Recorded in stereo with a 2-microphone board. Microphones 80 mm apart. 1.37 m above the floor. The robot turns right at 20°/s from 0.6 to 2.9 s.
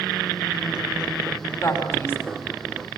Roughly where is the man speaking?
Left.